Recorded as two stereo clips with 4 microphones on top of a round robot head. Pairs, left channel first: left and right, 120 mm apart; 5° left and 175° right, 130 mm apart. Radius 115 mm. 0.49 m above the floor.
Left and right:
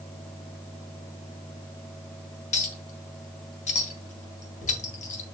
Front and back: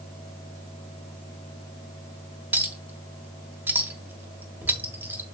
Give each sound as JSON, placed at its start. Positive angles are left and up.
{"t": 2.5, "sound": "a clink", "azimuth_deg": 110, "distance_m": 1.7}